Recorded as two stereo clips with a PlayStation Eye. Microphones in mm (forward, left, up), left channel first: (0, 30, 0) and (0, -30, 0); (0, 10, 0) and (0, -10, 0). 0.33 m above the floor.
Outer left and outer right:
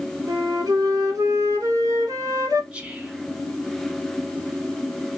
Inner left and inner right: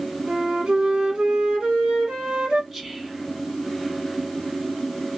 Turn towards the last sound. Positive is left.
turn(degrees=-20)  # may be behind; listen again after turning